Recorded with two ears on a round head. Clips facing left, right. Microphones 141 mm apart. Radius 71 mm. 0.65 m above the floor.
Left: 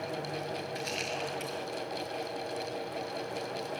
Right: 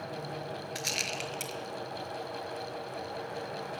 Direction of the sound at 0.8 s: 55° right (ahead or behind).